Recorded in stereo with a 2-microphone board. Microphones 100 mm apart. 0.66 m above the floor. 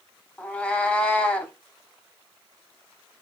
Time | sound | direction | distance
0.4 | a cat meowing | 15° left (ahead or behind) | 0.5 m